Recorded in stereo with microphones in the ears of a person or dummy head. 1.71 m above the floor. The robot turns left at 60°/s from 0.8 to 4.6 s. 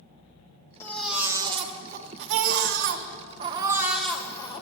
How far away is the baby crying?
About 1.2 m.